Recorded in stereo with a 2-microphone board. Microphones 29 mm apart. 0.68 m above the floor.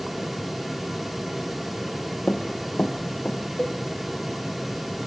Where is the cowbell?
25° left (ahead or behind), 0.9 m.